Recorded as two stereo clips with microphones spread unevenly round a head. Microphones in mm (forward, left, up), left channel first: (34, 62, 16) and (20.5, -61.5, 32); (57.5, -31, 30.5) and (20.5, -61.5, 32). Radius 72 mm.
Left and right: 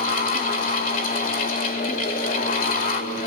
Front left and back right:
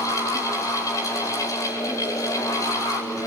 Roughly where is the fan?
Left.